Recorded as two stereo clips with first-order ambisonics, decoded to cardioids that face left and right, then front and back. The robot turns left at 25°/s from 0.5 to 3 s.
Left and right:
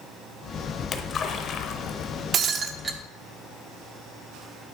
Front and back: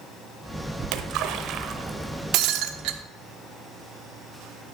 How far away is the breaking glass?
About 0.8 m.